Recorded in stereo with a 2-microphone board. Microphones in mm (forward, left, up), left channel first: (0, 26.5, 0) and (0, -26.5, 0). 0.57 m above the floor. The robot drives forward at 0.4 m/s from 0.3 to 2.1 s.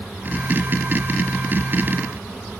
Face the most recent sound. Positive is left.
No sound to turn to.